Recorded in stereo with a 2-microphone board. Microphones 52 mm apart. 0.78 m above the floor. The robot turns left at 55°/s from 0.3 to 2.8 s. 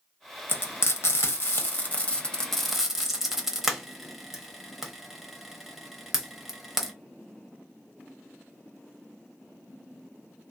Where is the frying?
45° left (ahead or behind), 0.8 m; by 6.9 s 5° right (ahead or behind), 0.8 m.